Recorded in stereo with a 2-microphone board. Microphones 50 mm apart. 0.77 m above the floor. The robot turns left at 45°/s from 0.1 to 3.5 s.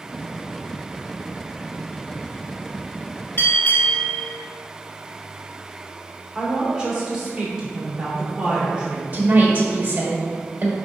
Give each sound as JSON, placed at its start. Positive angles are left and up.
{"t": 3.4, "sound": "a bell", "side_deg": 50, "distance_m": 2.5}
{"t": 6.3, "sound": "a woman speaking", "side_deg": -15, "distance_m": 2.5}
{"t": 9.1, "sound": "a woman speaking", "side_deg": -35, "distance_m": 1.7}